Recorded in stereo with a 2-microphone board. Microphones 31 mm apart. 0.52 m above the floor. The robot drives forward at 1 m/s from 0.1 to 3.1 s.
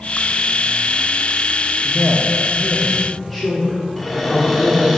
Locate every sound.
1.8 s a man speaking: 5° left (ahead or behind), 0.9 m; by 5.0 s centre (ahead or behind), 1.3 m
4.0 s a cupboard door: centre (ahead or behind), 1.4 m